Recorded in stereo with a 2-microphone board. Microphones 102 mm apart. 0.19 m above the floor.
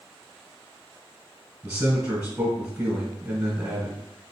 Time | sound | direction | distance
1.6 | a man speaking | 15° right (ahead or behind) | 1.5 m